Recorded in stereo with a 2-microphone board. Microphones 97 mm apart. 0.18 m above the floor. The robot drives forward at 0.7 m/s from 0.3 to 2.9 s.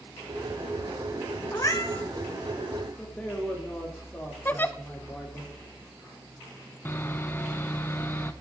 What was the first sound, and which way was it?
A cat meowing, 35° left (ahead or behind).